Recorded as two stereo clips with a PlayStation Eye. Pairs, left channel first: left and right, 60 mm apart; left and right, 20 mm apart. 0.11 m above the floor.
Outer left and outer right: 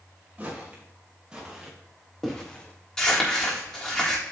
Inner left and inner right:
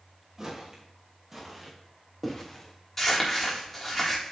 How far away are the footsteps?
About 4.5 m.